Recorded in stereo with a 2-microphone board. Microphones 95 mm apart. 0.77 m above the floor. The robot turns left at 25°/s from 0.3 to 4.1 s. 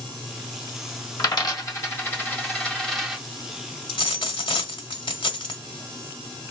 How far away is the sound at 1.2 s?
About 1.3 m.